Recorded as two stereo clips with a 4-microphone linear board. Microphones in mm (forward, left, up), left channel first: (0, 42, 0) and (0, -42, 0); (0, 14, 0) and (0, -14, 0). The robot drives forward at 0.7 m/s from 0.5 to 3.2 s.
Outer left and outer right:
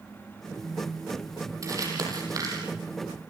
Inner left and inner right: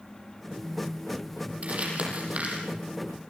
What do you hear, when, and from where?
1.6 s crumpling: 45° right (ahead or behind), 7 m; by 2.6 s 50° right (ahead or behind), 6.5 m